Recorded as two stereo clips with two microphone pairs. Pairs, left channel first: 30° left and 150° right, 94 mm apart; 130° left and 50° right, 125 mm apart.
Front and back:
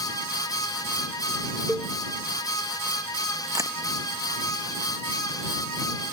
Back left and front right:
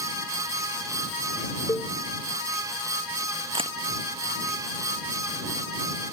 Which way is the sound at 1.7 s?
120° left.